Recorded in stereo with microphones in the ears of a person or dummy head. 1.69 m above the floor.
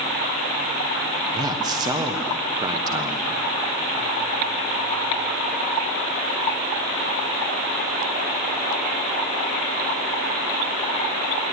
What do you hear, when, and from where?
1.3 s a man speaking: 25° right (ahead or behind), 1.3 m